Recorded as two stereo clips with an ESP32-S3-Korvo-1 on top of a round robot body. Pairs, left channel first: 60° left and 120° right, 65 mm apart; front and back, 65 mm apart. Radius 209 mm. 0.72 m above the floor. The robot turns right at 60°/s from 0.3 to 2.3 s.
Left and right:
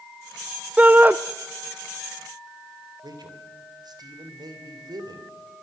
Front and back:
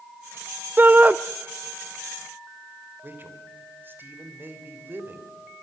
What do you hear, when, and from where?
0.8 s a shout: 165° right, 0.9 m; by 1.1 s 140° right, 0.9 m
3.0 s a man speaking: 120° right, 3.5 m